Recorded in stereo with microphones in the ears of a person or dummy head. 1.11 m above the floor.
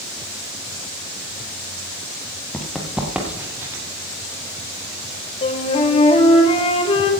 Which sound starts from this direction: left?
A flute, at 5.4 s.